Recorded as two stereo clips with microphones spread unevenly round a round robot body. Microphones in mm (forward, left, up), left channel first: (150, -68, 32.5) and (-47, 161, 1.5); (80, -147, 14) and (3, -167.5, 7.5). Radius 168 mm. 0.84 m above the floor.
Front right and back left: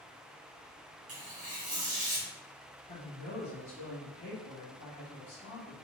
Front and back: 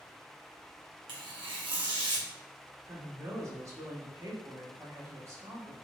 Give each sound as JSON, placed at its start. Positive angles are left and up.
{"t": 1.1, "sound": "tearing paper", "azimuth_deg": -160, "distance_m": 0.9}
{"t": 2.9, "sound": "a woman speaking", "azimuth_deg": -120, "distance_m": 1.5}